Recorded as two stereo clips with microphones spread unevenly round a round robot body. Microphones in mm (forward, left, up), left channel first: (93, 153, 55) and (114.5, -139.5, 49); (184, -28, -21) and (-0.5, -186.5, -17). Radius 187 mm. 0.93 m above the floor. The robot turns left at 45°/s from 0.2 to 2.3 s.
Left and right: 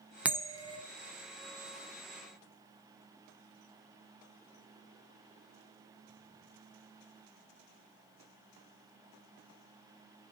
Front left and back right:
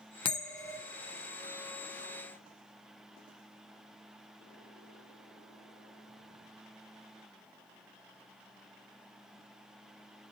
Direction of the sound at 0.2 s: 5° right.